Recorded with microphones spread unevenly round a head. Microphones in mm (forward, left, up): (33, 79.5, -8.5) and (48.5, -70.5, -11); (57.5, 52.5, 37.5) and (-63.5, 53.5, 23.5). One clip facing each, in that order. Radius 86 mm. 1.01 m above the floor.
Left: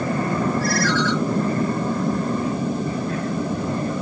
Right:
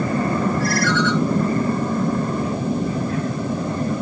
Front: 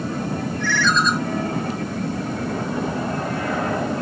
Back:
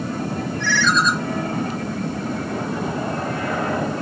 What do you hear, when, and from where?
0.6 s a ringtone: 160° left, 4 m